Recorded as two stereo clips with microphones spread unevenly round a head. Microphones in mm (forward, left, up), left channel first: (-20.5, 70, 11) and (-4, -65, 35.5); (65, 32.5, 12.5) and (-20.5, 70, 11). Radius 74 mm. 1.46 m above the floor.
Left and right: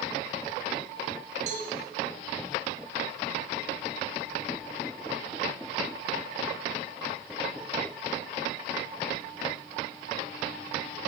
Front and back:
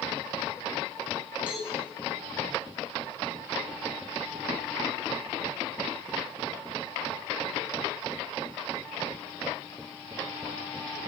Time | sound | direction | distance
1.5 | a cowbell | 120° right | 6.5 m